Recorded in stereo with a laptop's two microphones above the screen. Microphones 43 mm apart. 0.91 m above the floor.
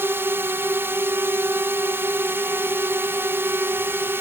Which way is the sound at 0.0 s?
60° right (ahead or behind).